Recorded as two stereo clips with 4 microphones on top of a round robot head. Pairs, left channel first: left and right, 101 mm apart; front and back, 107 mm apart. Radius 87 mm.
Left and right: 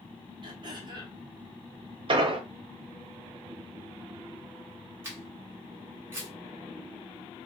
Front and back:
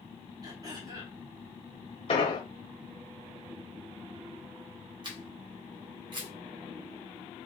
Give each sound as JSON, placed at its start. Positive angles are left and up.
{"t": 0.4, "sound": "throat clearing", "azimuth_deg": -125, "distance_m": 1.1}
{"t": 2.1, "sound": "an explosion", "azimuth_deg": -55, "distance_m": 0.6}
{"t": 5.0, "sound": "a camera shutter", "azimuth_deg": -150, "distance_m": 1.3}